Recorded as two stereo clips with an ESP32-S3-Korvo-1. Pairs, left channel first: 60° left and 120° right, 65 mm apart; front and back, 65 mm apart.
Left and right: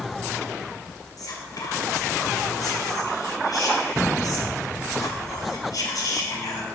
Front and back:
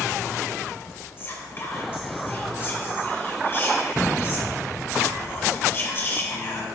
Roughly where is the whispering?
Ahead left.